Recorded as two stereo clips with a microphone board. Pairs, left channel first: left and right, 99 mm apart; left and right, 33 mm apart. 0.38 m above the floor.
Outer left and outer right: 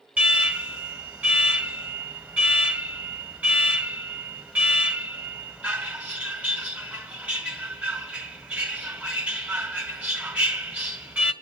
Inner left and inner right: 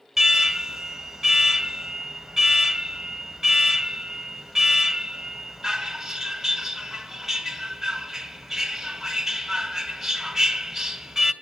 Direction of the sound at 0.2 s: 15° right (ahead or behind).